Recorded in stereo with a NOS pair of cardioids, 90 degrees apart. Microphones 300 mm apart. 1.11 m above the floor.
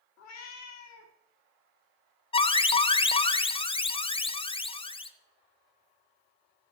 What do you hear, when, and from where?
0.2 s a cat meowing: 65° left, 1.4 m
2.3 s an alarm: 20° left, 0.5 m